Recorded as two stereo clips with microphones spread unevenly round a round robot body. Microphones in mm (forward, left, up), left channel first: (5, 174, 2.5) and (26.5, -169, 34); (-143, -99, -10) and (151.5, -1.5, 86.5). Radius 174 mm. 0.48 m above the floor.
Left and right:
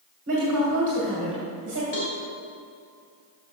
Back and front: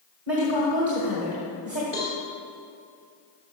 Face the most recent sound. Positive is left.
turn(degrees=100)